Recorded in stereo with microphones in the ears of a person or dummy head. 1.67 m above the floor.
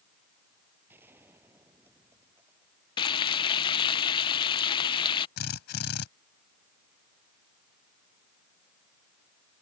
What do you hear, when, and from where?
0.9 s a gunshot: 15° right (ahead or behind)
3.0 s frying: 25° left (ahead or behind)
5.4 s a drill: 60° left (ahead or behind)